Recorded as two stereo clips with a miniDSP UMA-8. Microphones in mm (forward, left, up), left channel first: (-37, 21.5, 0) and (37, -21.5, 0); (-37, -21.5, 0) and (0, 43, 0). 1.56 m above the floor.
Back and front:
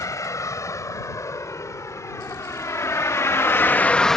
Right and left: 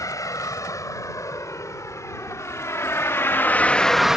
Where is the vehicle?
160° right; by 4.2 s 85° left.